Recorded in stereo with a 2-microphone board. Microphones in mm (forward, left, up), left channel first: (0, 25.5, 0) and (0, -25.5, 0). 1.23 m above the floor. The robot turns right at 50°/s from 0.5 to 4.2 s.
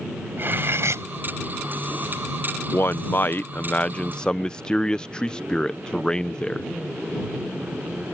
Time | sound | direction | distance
0.4 | cutlery clinking | 45° right (ahead or behind) | ?
2.7 | a man speaking | 85° left | ?